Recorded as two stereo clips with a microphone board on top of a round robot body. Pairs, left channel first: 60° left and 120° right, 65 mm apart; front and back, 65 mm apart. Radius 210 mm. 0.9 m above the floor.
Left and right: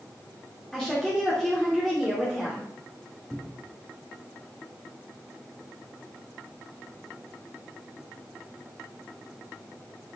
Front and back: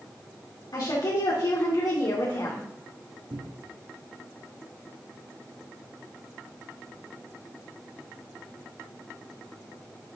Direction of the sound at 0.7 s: 25° right.